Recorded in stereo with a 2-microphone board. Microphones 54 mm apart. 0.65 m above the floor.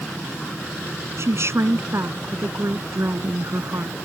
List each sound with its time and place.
1.2 s a woman speaking: 55° right (ahead or behind)